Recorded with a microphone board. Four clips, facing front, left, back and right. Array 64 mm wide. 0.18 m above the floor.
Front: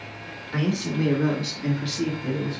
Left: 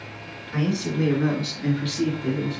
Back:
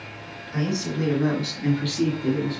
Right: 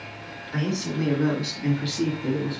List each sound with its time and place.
0.5 s a man speaking: 5° left, 1.9 m; by 2.6 s straight behind, 2.5 m